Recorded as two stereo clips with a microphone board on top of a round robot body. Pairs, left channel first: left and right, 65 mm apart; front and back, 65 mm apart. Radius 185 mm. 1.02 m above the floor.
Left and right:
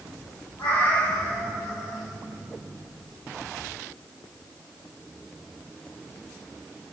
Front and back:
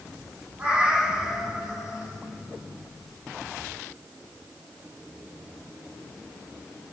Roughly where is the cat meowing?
Behind left.